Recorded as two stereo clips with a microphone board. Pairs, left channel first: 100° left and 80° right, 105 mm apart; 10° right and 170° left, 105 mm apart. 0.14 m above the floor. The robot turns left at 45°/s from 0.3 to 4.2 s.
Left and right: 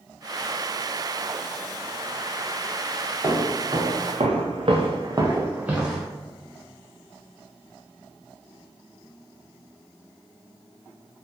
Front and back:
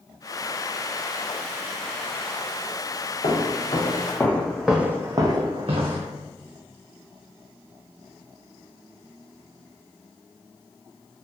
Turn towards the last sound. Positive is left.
turn(degrees=-170)